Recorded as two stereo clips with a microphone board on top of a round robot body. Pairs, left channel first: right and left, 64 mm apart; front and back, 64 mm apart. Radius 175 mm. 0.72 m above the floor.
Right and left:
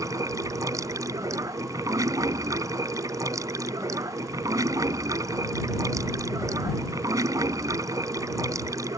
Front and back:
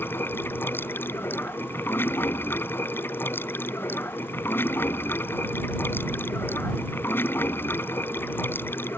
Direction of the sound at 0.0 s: 55° left.